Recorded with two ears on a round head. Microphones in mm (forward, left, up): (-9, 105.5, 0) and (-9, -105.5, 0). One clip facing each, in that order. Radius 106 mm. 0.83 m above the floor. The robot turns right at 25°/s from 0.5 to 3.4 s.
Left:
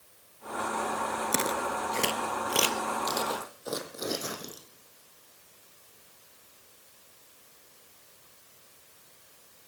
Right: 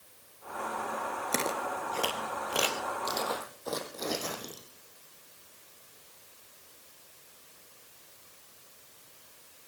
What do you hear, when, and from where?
1.3 s footsteps: 15° left (ahead or behind), 0.8 m